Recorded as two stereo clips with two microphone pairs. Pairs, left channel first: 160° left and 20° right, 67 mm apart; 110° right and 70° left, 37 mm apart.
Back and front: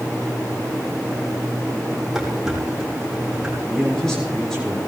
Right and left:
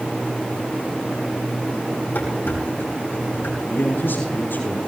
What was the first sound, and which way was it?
Dishes clattering, 100° right.